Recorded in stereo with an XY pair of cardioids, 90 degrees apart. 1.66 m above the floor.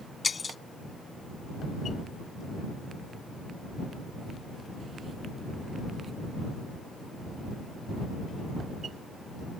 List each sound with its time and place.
0.2 s breaking glass: 35° left